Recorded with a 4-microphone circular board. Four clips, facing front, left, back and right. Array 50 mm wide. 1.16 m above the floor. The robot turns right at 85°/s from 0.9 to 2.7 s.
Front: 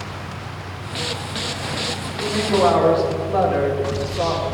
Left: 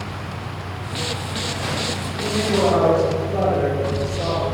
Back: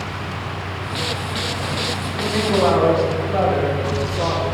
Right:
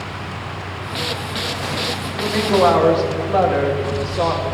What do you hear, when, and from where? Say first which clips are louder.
2.1 s a woman speaking: right 3 dB, even; 140° right, 2.5 m; by 4.4 s 85° right, 2.5 m